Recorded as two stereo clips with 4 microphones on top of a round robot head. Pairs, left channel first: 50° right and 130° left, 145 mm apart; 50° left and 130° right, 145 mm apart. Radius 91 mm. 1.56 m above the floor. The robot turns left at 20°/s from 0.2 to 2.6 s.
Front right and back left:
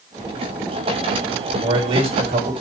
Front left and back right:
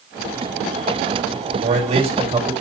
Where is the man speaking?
170° right, 3.5 m; by 2.5 s 170° left, 3.5 m.